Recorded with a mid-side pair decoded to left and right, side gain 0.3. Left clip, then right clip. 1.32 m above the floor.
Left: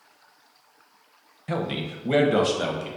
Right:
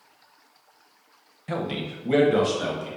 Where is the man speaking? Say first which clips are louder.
Left 1 dB; 10° left, 0.6 m; by 2.9 s 55° left, 1.0 m.